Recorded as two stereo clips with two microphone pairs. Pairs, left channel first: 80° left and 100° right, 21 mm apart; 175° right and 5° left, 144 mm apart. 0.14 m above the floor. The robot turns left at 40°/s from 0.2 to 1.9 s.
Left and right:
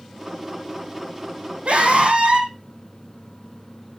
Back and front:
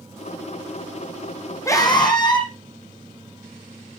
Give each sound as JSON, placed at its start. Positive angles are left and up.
{"t": 1.6, "sound": "a scream", "azimuth_deg": -105, "distance_m": 5.5}